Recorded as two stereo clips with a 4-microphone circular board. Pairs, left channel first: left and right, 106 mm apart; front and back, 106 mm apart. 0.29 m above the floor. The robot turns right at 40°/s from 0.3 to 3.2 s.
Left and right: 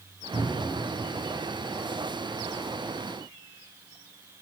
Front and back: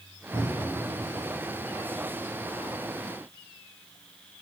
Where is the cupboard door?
110° right, 5 m; by 0.8 s 90° right, 5 m.